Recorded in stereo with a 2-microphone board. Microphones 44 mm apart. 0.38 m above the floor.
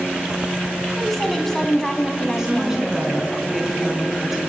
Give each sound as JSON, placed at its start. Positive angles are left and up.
{"t": 0.9, "sound": "a woman speaking", "side_deg": 0, "distance_m": 2.5}
{"t": 2.4, "sound": "a woman speaking", "side_deg": -15, "distance_m": 5.0}